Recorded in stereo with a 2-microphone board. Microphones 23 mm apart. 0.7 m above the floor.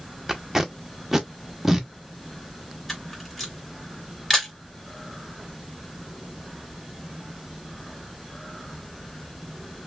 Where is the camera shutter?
10° left (ahead or behind), 2 m.